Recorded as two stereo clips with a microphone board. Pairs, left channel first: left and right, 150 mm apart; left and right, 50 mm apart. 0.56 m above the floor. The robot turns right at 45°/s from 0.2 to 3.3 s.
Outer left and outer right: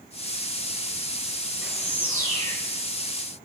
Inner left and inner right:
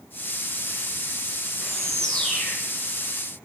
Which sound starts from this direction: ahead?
A bird, at 1.6 s.